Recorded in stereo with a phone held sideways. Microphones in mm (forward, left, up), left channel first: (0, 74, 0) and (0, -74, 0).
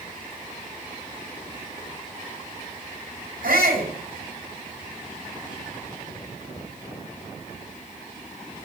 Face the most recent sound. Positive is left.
turn(degrees=-80)